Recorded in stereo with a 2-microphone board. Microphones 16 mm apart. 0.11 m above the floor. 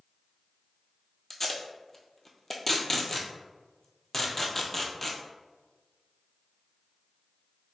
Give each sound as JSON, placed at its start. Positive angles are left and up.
{"t": 1.3, "sound": "tape being pulled", "side_deg": 20, "distance_m": 0.7}